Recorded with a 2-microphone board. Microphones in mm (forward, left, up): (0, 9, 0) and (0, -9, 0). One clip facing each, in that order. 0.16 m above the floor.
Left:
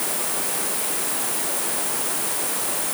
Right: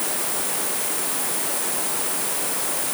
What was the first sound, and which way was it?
Only background noise.